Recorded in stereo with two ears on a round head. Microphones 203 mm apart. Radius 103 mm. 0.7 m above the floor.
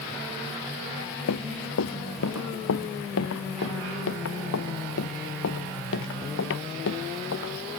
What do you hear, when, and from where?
1.3 s running footsteps: 65° left (ahead or behind); by 7.5 s 60° left (ahead or behind)